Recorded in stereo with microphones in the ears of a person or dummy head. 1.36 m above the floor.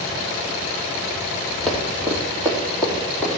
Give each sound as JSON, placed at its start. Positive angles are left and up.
{"t": 1.7, "sound": "running footsteps", "side_deg": 5, "distance_m": 3.0}